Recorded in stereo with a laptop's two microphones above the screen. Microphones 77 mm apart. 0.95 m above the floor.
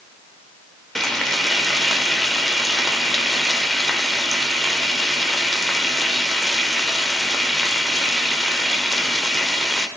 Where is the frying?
5° left (ahead or behind), 1.0 m.